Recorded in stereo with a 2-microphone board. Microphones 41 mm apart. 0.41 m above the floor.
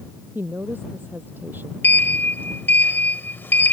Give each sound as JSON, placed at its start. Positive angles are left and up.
{"t": 0.3, "sound": "a woman speaking", "side_deg": -55}
{"t": 1.8, "sound": "a sliding door", "side_deg": 60}